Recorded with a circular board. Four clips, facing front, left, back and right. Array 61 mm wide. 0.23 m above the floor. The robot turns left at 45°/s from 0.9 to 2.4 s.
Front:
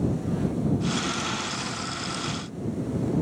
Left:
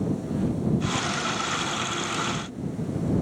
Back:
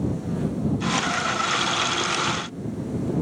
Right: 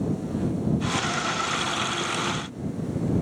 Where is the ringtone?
I don't hear a ringtone.